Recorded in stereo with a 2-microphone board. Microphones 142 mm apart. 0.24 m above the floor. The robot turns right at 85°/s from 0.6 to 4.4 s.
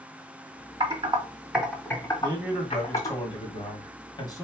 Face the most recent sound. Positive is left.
turn(degrees=150)